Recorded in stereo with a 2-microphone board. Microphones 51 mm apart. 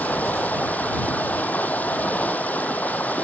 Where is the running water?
30° left (ahead or behind).